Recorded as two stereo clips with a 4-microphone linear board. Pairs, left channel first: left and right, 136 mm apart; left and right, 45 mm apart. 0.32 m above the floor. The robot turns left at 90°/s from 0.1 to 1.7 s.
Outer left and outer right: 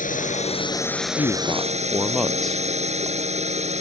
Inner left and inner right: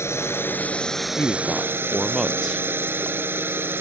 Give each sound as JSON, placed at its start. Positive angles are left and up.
{"t": 0.0, "sound": "a drone", "azimuth_deg": 90}
{"t": 1.2, "sound": "a man speaking", "azimuth_deg": 50}